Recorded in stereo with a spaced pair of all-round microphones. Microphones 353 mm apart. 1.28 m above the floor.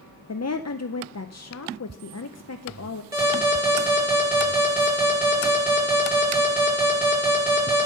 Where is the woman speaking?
45° left (ahead or behind), 0.5 m.